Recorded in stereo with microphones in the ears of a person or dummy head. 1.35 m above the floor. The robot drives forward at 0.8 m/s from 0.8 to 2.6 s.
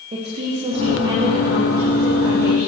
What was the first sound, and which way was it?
A woman speaking, 35° right (ahead or behind).